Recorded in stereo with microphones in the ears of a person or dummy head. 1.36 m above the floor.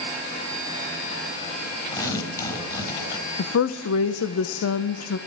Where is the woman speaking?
85° left, 0.7 m.